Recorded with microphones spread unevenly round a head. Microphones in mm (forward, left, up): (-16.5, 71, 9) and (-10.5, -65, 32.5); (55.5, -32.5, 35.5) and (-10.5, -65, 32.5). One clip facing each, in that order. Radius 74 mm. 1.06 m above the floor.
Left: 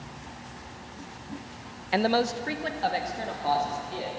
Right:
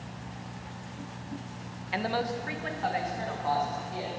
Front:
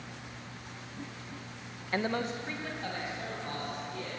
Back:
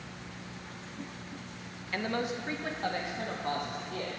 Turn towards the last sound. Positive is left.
turn(degrees=150)